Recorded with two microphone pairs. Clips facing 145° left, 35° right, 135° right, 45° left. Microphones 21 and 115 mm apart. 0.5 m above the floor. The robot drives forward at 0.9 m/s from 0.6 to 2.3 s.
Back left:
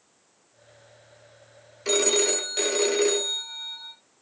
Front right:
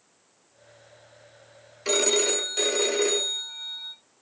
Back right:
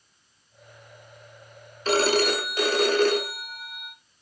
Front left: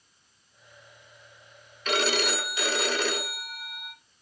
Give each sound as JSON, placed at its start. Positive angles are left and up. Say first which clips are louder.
{"t": 1.9, "sound": "a phone ringing", "louder": "even, back right 6 dB", "azimuth_deg": -110, "distance_m": 0.7}